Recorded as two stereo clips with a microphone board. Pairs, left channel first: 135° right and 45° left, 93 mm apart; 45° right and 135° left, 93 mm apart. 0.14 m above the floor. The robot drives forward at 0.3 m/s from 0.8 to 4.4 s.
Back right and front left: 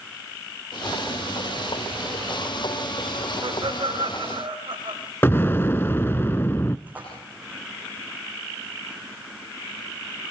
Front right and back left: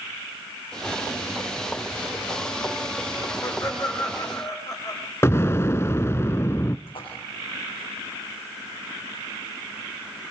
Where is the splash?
30° right, 9.5 m.